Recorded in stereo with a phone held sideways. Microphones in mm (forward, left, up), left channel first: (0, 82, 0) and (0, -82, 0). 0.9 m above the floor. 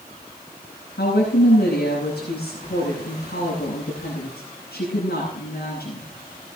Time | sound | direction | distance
1.0 | a woman speaking | 80° left | 8.5 m